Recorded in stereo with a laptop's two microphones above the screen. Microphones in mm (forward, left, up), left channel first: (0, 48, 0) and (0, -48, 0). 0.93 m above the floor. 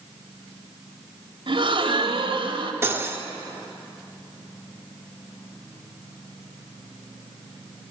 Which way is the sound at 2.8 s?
25° right (ahead or behind).